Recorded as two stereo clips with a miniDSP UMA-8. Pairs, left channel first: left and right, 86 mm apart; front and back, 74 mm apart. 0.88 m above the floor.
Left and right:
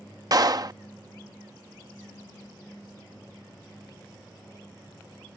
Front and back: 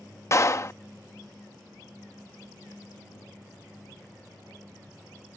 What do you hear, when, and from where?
0.3 s a clap: 50° right